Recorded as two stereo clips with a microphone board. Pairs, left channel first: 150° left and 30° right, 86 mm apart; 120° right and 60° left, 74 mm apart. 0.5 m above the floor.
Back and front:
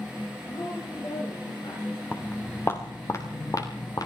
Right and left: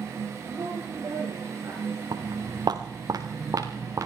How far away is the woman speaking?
About 7 m.